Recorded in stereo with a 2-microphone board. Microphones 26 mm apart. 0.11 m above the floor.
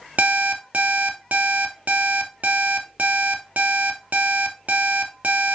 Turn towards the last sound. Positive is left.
turn(degrees=-65)  # may be behind; listen again after turning